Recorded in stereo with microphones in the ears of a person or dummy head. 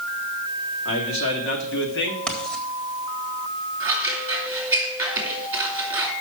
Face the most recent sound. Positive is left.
turn(degrees=-10)  # may be behind; listen again after turning